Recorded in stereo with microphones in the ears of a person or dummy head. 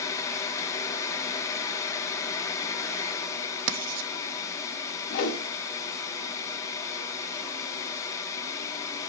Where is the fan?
20° left (ahead or behind), 0.7 m.